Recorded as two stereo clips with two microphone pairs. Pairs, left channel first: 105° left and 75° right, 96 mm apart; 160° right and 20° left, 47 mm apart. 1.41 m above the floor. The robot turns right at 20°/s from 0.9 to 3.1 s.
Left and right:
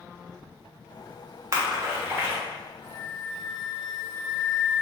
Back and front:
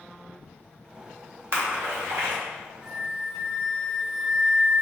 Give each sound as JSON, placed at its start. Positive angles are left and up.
{"t": 1.5, "sound": "a splash", "azimuth_deg": -15, "distance_m": 1.1}
{"t": 2.8, "sound": "a flute", "azimuth_deg": 110, "distance_m": 1.9}